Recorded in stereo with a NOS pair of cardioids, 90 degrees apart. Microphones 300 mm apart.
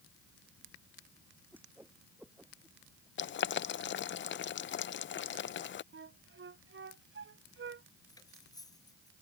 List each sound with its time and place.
1.5 s a whoosh: 5° right
3.2 s boiling: 40° left
5.9 s a flute: 40° right
8.1 s cutlery clinking: 10° left